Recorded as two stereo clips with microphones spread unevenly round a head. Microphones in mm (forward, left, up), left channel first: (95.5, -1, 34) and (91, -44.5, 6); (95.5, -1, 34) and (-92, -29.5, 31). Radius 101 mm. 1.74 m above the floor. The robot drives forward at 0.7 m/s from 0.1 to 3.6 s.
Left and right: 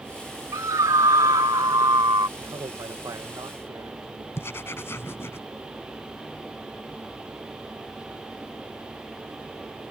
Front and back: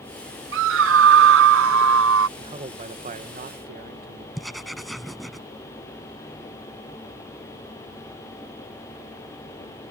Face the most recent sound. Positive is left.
turn(degrees=100)